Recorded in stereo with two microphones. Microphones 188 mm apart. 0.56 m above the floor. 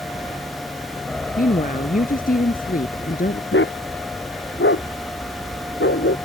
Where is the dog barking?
85° left.